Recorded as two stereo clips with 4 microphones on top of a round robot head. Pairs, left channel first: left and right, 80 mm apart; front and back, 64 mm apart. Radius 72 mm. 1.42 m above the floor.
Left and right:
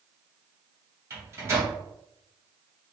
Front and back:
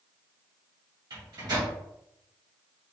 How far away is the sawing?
No sawing in this recording.